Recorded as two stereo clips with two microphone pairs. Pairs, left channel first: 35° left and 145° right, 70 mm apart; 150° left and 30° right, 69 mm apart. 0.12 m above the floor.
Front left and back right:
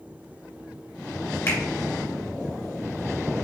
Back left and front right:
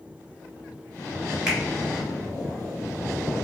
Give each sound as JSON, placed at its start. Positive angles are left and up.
{"t": 1.5, "sound": "a finger snap", "azimuth_deg": 50, "distance_m": 1.9}